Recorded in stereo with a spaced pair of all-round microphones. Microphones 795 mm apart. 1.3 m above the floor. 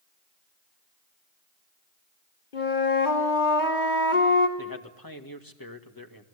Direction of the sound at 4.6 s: 25° left (ahead or behind).